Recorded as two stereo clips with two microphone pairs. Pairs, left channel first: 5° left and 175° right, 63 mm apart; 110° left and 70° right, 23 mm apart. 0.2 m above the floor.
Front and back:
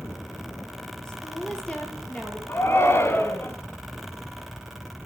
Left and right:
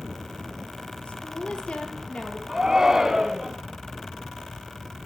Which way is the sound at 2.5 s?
15° right.